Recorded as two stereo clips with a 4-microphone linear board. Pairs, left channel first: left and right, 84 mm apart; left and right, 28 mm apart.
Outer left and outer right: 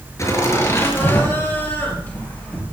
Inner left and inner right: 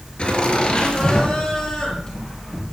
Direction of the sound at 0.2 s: 35° left (ahead or behind).